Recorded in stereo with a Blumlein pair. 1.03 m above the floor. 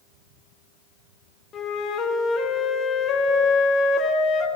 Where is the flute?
25° left, 1.0 m.